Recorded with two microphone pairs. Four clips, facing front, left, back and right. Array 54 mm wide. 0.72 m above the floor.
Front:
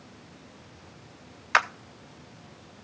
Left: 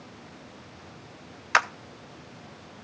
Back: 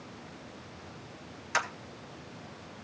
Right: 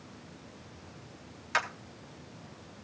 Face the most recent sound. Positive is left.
turn(degrees=50)